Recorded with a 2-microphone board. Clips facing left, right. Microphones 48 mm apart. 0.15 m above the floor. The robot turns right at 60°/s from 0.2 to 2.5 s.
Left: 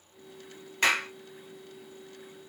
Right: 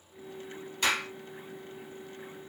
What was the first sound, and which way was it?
A clap, 55° left (ahead or behind).